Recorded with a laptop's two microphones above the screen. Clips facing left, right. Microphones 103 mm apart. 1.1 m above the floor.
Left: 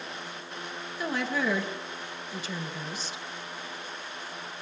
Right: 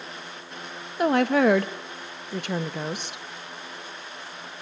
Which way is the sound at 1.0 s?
70° right (ahead or behind).